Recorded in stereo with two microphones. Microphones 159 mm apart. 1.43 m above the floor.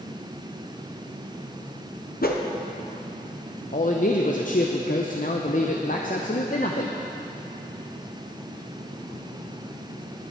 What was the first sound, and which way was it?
A whoosh, 70° left (ahead or behind).